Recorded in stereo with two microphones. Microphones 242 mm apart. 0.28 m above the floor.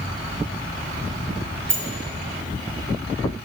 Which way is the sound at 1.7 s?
50° right (ahead or behind).